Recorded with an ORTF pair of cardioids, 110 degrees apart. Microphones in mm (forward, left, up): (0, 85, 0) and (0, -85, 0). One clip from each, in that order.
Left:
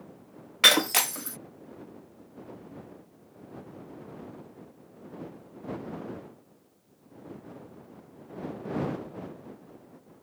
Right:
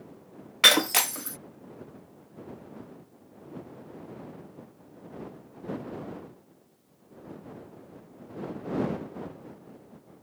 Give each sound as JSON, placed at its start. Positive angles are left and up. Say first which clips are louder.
{"t": 0.6, "sound": "breaking glass", "louder": "right 1 dB", "azimuth_deg": 0}